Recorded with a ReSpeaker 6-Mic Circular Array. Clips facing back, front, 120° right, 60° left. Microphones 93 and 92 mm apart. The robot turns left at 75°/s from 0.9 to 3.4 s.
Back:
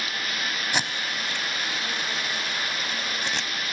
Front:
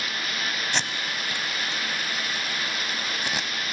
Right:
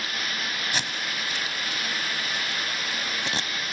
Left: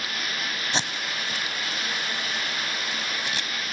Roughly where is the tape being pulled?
Left.